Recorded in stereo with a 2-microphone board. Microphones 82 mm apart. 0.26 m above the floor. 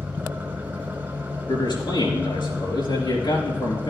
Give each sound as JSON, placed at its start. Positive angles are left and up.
{"t": 0.0, "sound": "an engine running", "side_deg": -25, "distance_m": 1.4}
{"t": 1.5, "sound": "a man speaking", "side_deg": 70, "distance_m": 4.0}